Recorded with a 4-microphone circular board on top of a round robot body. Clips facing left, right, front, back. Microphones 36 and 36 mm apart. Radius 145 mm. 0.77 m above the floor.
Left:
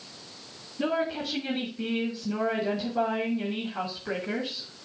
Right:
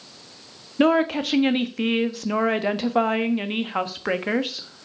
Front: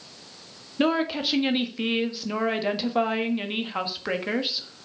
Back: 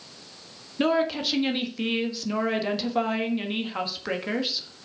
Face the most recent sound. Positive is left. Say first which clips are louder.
# right 9 dB, even
turn(degrees=-80)